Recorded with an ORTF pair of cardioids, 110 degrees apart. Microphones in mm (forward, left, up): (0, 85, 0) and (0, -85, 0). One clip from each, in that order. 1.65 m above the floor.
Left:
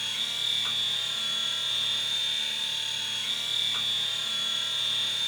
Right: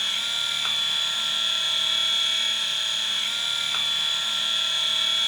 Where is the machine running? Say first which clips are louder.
Right 4 dB; 40° right, 1.5 m.